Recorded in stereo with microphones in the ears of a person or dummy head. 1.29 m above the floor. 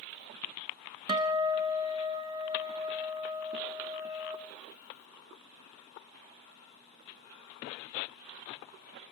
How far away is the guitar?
About 0.8 m.